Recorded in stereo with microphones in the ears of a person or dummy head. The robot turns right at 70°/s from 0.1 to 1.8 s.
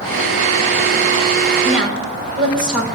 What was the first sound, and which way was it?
A woman speaking, 20° right (ahead or behind).